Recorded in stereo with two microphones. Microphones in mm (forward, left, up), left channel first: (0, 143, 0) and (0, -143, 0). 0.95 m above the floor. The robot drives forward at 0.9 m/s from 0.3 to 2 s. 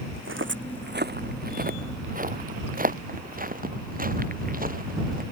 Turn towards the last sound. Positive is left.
turn(degrees=-30)  # may be behind; listen again after turning